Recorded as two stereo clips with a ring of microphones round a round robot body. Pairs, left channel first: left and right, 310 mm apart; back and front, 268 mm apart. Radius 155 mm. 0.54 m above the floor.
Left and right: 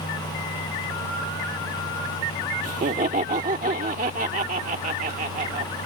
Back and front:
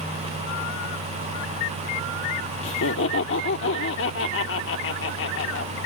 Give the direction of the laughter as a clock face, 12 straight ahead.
5 o'clock.